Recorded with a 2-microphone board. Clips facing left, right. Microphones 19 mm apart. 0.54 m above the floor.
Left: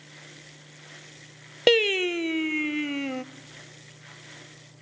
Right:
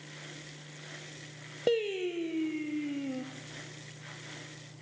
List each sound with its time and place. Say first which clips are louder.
1.7 s singing: left 9 dB; 70° left (ahead or behind), 0.6 m